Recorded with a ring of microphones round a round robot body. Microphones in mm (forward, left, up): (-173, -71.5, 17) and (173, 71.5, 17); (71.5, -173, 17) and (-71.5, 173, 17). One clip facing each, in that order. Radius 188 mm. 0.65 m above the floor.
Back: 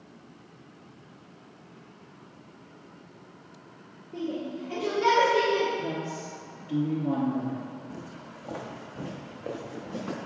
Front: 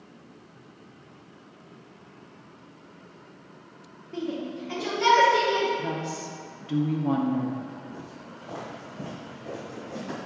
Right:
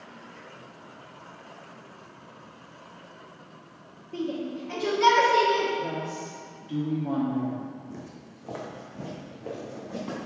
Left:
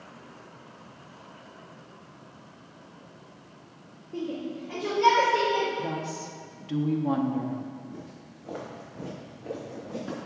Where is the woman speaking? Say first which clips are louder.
Front 1 dB, right 1 dB; 75° left, 0.8 m.